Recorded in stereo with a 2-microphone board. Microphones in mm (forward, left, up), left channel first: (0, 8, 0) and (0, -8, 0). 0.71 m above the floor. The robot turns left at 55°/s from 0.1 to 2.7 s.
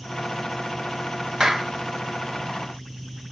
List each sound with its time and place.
1.4 s a clap: 35° right (ahead or behind), 1.6 m; by 1.7 s 20° right (ahead or behind), 1.6 m